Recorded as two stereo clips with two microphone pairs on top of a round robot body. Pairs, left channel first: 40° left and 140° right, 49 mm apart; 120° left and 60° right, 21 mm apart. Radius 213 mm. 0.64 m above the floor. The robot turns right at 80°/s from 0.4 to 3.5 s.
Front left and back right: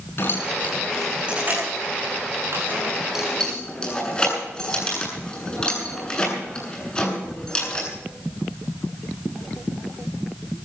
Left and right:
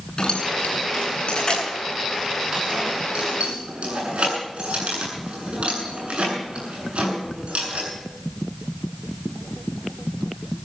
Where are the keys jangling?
75° left, 8.5 m; by 7.9 s 35° right, 8.5 m.